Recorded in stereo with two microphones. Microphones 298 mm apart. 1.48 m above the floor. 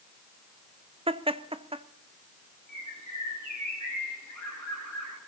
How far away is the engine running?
I don't hear an engine running.